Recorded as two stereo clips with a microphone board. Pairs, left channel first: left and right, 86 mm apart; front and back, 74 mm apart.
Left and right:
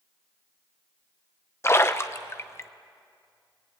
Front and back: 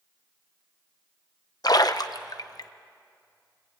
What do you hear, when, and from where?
1.6 s a splash: 30° left, 0.8 m